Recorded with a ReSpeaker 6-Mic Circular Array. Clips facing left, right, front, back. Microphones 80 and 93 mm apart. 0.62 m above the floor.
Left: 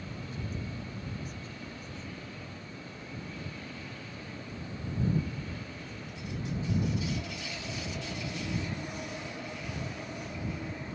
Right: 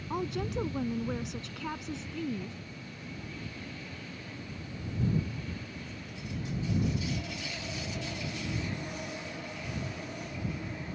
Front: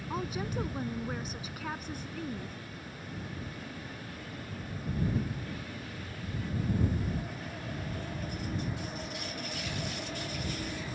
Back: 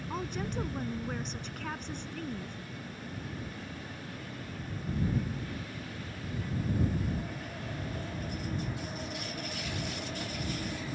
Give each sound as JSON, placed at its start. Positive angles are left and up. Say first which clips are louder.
{"t": 0.1, "sound": "a woman speaking", "louder": "right 11 dB, front 1 dB", "azimuth_deg": -85}